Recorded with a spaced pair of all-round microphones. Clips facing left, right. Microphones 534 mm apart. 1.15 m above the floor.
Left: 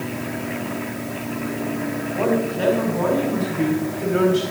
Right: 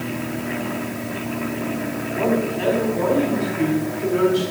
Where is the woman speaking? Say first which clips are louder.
Even; 75° left (ahead or behind), 4 m; by 4.4 s 80° left, 4.5 m.